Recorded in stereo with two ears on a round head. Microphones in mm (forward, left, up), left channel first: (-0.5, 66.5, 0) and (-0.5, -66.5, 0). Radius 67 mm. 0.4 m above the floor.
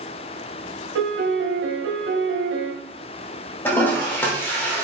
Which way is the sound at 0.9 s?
85° right.